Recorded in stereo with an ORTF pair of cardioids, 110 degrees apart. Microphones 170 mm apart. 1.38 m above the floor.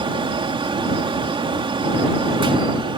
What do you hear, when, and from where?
0.0 s a fan: 30° right